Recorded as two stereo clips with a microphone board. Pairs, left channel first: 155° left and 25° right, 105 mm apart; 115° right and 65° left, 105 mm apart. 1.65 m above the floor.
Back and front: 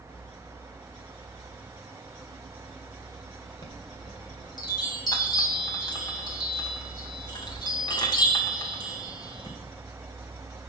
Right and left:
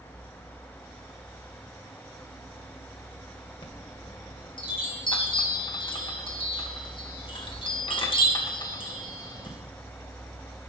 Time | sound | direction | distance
3.6 | a chime | 155° right | 1.7 m